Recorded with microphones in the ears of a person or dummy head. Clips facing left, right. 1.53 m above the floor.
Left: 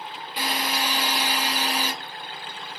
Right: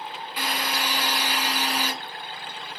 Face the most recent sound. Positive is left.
turn(degrees=20)  # may be behind; listen again after turning